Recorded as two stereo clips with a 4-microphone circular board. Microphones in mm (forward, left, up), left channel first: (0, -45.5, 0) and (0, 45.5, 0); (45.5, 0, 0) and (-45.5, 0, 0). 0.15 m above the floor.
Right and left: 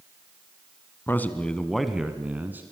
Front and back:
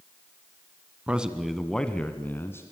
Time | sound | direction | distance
1.1 | a man speaking | 120° right | 1.7 m